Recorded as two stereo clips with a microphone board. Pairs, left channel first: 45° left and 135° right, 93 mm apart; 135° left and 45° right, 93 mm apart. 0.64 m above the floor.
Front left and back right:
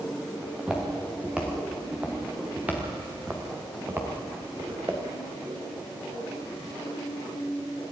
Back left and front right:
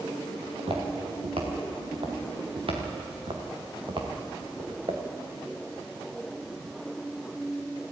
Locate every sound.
0.4 s footsteps: 55° right, 5 m; by 5.0 s 75° right, 3.5 m